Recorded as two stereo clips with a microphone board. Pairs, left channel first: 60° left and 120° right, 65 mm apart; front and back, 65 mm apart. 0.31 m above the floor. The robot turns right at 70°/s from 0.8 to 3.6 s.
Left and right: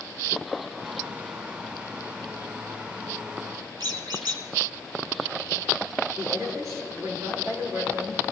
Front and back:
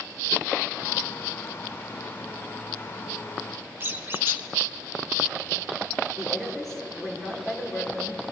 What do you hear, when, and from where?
3.8 s a squeak: 120° right, 2.0 m
6.2 s a woman speaking: 90° right, 5.5 m